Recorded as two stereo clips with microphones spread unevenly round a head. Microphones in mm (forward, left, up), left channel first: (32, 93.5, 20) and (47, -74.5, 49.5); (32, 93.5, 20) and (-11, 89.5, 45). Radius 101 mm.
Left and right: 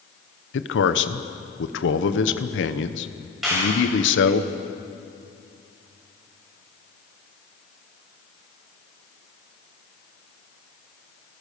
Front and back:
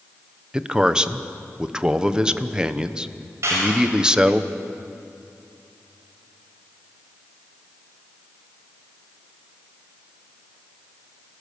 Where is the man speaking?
115° left, 1.1 m.